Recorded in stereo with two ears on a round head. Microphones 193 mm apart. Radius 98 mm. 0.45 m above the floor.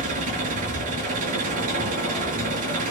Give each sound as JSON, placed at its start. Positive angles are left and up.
{"t": 0.0, "sound": "an engine running", "side_deg": -35, "distance_m": 6.0}